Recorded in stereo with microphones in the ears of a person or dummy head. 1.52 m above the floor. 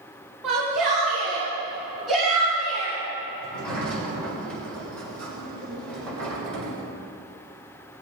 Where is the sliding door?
5° left (ahead or behind), 5.5 m.